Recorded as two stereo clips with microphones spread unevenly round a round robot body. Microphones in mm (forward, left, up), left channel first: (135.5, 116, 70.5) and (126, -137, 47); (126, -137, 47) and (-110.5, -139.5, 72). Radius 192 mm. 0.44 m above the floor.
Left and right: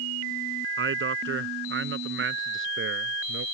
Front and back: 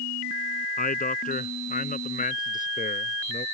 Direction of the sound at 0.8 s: 50° right.